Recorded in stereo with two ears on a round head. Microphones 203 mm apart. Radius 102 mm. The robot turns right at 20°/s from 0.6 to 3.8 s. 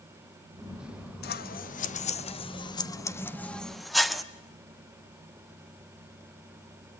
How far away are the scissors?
About 1.0 m.